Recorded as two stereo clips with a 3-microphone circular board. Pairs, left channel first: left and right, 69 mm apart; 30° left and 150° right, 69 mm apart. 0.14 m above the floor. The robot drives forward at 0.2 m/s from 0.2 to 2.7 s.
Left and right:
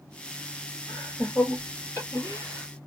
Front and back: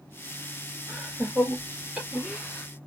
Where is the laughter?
120° left, 2.5 m; by 2.7 s 130° left, 2.5 m.